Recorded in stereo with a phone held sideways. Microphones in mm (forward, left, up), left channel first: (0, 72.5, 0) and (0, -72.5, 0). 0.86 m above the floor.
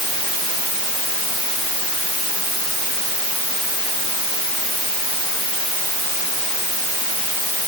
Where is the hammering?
I don't hear hammering.